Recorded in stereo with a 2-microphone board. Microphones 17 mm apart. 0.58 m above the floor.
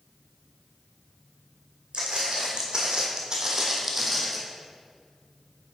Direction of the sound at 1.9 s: 60° right (ahead or behind).